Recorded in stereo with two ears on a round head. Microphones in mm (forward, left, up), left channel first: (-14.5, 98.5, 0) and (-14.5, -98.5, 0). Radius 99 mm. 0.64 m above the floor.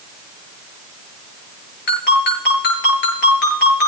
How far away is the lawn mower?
I don't hear a lawn mower.